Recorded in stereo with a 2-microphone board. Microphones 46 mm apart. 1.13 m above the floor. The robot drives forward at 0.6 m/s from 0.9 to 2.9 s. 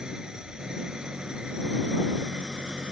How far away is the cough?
I don't hear a cough.